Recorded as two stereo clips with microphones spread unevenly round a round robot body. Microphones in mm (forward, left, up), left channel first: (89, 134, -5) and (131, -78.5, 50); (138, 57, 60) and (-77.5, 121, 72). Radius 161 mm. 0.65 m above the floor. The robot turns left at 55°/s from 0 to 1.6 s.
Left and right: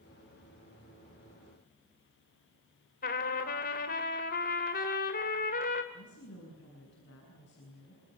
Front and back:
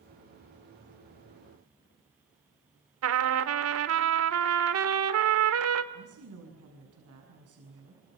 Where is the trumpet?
155° left, 1.7 m.